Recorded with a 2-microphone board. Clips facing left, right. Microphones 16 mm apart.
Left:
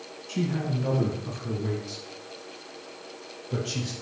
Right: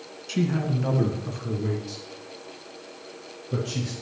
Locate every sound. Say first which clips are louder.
0.3 s a man speaking: right 3 dB; 35° right (ahead or behind), 2 m; by 3.9 s 15° left (ahead or behind), 5.5 m